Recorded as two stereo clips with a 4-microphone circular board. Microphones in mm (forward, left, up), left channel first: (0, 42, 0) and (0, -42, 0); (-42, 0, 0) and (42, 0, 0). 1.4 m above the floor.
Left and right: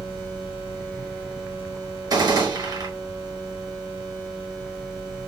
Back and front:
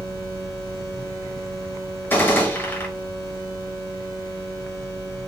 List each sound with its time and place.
2.1 s a gunshot: 120° right, 1.2 m